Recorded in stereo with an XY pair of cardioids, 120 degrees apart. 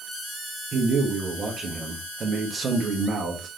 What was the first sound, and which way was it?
A man speaking, 40° right.